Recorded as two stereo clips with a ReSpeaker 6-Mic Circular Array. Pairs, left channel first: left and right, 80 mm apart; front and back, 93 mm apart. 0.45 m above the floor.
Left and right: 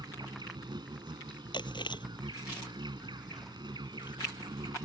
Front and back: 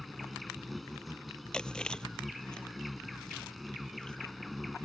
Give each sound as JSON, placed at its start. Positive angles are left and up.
{"t": 0.0, "sound": "an insect", "azimuth_deg": -90}
{"t": 1.5, "sound": "chewing", "azimuth_deg": 80}